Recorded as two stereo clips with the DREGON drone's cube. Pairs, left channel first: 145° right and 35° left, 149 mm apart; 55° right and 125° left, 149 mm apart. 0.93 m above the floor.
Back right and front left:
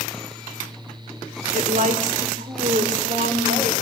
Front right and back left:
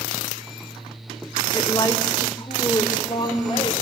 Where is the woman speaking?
5° left, 2 m.